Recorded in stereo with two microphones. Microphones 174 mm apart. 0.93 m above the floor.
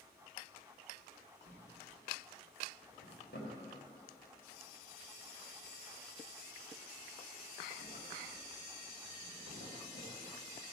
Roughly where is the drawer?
Left.